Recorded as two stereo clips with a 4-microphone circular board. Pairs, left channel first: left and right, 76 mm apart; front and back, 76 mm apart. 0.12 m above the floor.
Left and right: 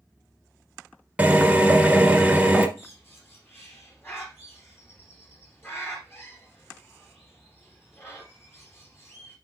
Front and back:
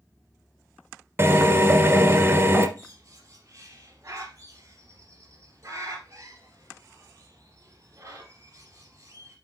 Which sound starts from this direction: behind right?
A drill, at 1.2 s.